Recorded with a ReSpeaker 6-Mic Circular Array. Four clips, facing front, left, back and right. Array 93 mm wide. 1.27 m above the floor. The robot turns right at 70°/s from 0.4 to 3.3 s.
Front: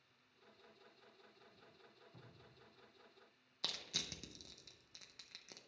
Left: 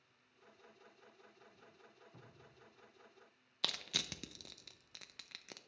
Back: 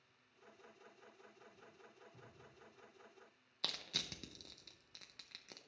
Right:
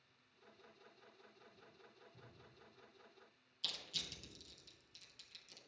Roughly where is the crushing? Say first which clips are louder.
Left 8 dB, back 1 dB; left.